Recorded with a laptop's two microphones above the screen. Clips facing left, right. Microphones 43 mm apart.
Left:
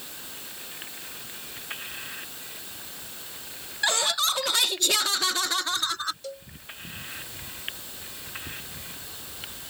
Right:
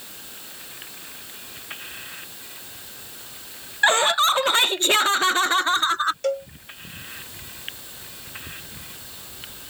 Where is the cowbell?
65° right (ahead or behind).